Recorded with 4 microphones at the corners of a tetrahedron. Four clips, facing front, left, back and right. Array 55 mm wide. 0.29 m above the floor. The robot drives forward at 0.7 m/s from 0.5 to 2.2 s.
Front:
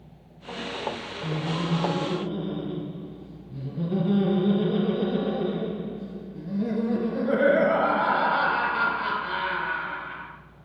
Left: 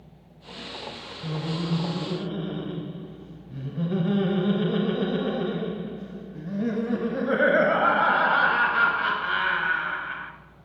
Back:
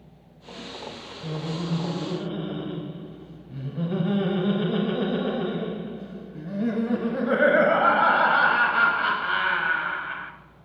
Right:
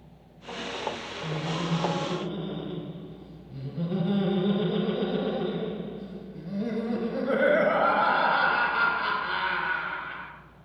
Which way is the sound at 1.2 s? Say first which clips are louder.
Left 1 dB, front 2 dB; 110° left.